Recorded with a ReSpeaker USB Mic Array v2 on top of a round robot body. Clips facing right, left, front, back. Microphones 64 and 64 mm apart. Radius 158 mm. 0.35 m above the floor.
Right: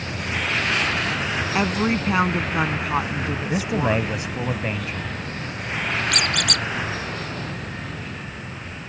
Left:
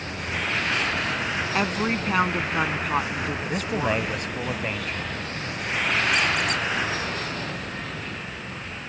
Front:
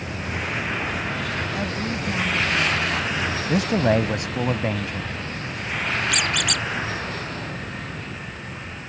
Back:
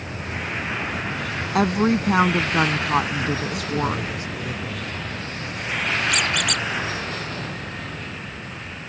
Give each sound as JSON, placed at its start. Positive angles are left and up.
{"t": 1.6, "sound": "a woman speaking", "azimuth_deg": -175}
{"t": 3.5, "sound": "a man speaking", "azimuth_deg": -5}
{"t": 6.1, "sound": "a squeak", "azimuth_deg": -90}